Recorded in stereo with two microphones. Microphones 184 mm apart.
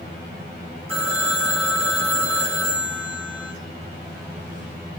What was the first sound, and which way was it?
A phone ringing, 30° right (ahead or behind).